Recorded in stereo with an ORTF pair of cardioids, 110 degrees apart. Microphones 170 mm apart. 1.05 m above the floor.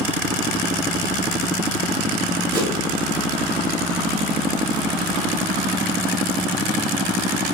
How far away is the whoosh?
About 1.4 m.